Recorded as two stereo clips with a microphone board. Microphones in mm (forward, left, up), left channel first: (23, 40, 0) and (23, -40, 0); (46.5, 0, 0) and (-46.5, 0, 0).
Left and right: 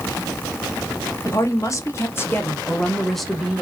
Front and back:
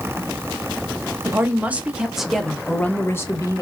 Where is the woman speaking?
120° left, 1.1 m; by 3.6 s 15° right, 0.9 m.